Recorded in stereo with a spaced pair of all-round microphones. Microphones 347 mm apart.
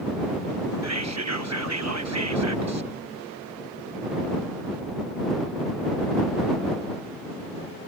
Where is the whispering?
50° right (ahead or behind).